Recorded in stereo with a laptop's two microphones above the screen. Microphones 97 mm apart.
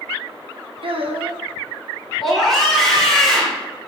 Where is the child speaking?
70° right (ahead or behind), 0.6 m.